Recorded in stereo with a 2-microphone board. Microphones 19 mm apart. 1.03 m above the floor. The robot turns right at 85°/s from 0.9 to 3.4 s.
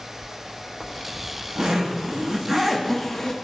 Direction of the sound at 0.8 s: 175° right.